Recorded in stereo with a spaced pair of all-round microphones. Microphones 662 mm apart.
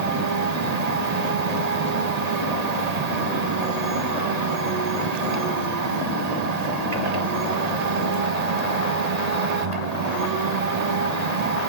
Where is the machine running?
70° right (ahead or behind), 1.2 m.